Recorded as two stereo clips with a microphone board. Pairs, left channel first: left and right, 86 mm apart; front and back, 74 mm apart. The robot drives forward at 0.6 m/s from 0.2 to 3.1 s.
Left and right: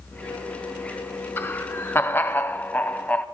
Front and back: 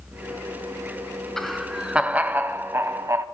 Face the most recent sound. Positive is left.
turn(degrees=155)